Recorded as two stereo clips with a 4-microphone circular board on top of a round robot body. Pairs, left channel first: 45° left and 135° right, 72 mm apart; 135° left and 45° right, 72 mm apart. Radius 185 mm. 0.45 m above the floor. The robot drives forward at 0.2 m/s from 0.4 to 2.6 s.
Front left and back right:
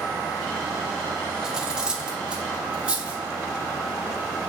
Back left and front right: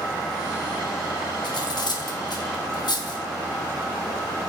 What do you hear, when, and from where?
1.4 s cutlery clinking: 145° left, 1.0 m; by 3.2 s 150° left, 1.2 m